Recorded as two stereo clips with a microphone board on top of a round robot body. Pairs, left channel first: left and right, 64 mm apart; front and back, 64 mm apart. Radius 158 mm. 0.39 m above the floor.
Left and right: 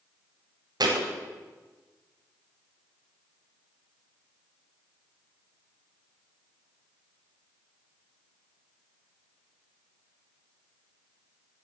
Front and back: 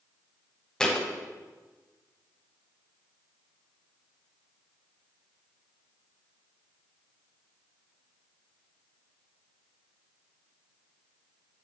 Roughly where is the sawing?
No sawing in this recording.